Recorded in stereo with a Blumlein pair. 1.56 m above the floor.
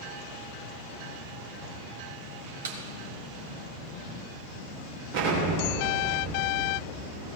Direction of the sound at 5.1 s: 50° right.